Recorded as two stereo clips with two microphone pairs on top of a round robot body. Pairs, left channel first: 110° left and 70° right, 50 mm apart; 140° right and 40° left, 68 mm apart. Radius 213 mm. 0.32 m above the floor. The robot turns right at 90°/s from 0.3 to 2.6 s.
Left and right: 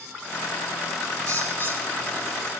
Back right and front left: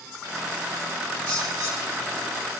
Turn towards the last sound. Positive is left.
turn(degrees=170)